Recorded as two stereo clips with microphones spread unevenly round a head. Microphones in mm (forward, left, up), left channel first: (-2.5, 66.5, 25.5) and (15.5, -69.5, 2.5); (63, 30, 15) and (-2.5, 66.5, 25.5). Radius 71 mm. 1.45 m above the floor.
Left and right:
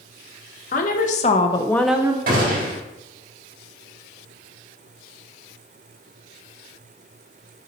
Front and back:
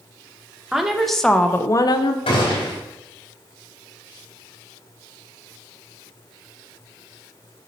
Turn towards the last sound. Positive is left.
turn(degrees=-55)